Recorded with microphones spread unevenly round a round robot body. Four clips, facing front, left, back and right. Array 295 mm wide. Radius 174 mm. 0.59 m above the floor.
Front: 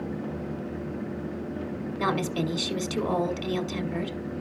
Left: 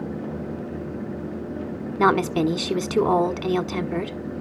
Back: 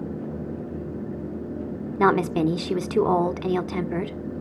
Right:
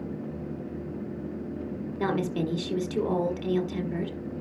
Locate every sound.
2.0 s a woman speaking: 110° left, 1.4 m